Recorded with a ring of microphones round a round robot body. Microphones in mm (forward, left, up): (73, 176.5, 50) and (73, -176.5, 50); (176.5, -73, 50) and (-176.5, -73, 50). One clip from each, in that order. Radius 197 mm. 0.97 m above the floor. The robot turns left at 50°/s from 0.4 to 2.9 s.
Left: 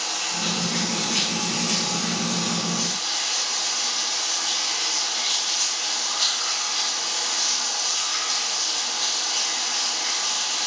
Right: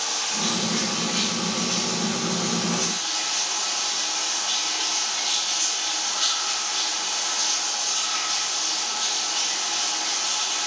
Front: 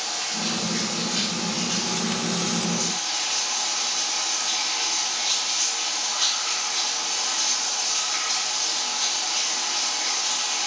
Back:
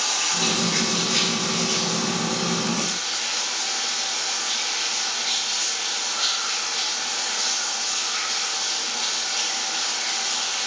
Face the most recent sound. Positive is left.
turn(degrees=45)